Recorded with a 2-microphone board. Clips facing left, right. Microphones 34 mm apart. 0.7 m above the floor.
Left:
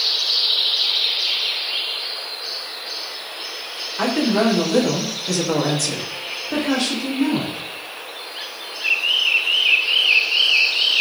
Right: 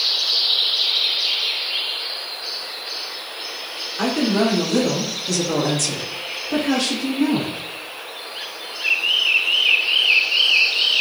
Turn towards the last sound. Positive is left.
turn(degrees=-5)  # may be behind; listen again after turning